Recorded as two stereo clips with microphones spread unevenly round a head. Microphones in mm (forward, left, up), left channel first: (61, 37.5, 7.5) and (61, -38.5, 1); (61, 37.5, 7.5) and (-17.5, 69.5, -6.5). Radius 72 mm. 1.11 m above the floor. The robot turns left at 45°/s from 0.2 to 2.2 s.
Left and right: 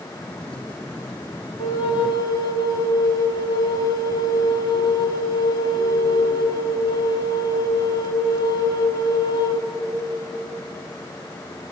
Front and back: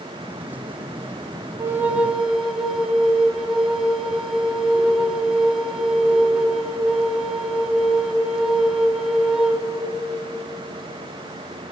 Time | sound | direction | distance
1.6 | a flute | 105° left | 1.1 m